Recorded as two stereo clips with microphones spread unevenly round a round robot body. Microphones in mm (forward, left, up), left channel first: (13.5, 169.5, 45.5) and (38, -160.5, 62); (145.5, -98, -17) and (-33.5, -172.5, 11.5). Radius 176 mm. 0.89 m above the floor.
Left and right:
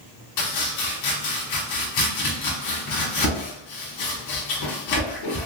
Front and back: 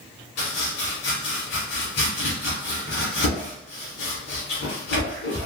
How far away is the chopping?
About 1.5 m.